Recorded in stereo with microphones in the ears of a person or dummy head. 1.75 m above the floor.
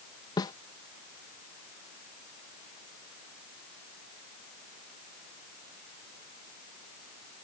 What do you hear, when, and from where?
0.4 s a snare drum: 20° left (ahead or behind)